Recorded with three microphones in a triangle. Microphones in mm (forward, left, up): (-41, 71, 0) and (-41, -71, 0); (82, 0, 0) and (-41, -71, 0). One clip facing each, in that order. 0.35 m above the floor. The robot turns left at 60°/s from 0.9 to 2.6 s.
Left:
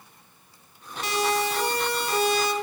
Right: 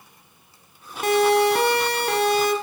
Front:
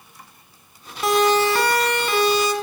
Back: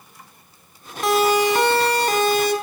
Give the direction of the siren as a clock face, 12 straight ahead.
2 o'clock.